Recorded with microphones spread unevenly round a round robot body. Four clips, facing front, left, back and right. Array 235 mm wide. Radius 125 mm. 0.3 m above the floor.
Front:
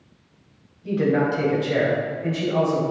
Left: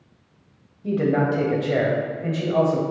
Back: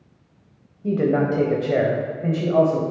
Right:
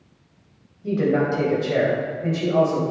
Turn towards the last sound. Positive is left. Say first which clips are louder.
# even, back 1 dB
turn(degrees=165)